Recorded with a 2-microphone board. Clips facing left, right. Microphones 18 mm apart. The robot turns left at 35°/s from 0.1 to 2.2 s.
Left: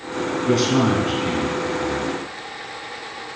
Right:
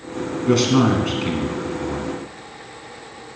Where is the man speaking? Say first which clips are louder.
Right 2 dB; 25° right (ahead or behind), 1.4 m.